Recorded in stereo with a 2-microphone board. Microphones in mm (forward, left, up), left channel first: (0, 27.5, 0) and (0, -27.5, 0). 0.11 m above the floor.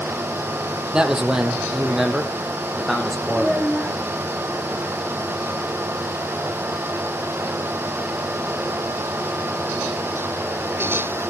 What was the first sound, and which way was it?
A man speaking, 15° right (ahead or behind).